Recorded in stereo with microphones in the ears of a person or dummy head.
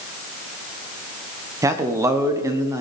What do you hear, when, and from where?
1.6 s a man speaking: 15° right (ahead or behind), 1.2 m